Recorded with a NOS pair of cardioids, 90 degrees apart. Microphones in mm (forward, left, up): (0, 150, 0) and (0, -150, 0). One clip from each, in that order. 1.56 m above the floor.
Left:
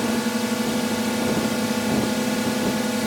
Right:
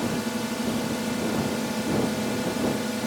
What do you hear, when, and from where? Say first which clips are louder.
0.0 s a drone: left 5 dB; 35° left